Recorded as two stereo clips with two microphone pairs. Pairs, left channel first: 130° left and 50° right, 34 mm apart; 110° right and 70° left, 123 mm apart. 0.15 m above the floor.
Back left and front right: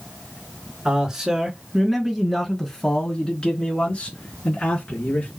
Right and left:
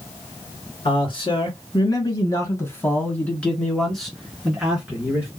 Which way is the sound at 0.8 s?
110° right.